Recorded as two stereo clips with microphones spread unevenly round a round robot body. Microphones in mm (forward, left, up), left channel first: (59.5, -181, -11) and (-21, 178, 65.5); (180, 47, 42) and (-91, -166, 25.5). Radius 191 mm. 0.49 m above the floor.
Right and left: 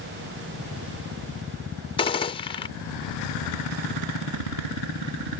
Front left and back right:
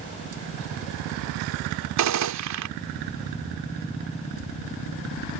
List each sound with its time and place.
2.0 s a gunshot: 140° right